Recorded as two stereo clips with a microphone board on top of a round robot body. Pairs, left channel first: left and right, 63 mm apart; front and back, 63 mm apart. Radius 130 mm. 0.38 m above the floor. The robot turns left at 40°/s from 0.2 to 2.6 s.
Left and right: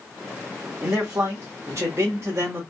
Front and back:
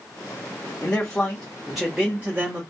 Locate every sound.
0.8 s a man speaking: 55° right, 1.1 m; by 2.6 s 125° right, 1.1 m